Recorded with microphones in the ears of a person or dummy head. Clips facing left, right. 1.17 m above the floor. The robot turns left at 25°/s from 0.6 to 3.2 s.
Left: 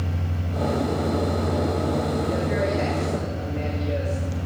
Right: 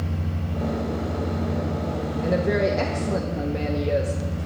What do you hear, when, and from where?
2.2 s a woman speaking: 60° right (ahead or behind), 1.0 m; by 4.5 s 70° right (ahead or behind), 1.0 m